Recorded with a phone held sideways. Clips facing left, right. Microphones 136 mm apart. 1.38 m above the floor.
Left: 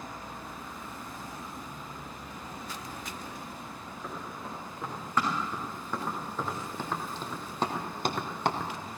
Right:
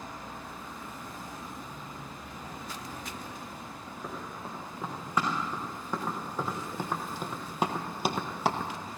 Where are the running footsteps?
10° right (ahead or behind), 6.5 m; by 8.7 s centre (ahead or behind), 1.3 m.